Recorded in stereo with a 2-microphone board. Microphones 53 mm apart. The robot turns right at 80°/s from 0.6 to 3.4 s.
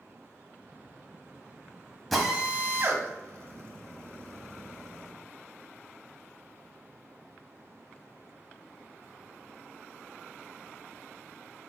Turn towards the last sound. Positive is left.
turn(degrees=-60)  # may be behind; listen again after turning